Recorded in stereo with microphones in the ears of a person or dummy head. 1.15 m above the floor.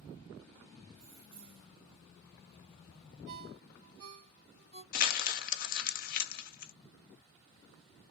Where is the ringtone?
60° right (ahead or behind), 2 m.